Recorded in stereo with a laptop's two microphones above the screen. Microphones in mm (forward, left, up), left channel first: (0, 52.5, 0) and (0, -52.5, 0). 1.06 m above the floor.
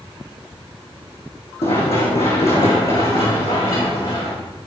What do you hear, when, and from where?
1.6 s running footsteps: 75° left (ahead or behind), 3.5 m; by 4.3 s 65° left (ahead or behind), 6.5 m